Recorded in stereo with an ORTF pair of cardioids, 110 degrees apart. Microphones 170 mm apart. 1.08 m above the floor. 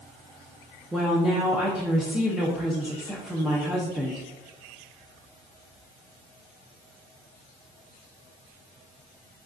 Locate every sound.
0.9 s a woman speaking: 5° right, 0.8 m